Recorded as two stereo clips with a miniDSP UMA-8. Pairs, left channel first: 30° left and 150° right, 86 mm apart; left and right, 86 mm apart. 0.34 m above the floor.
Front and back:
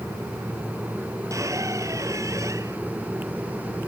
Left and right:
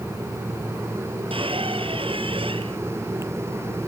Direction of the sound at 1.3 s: 95° right.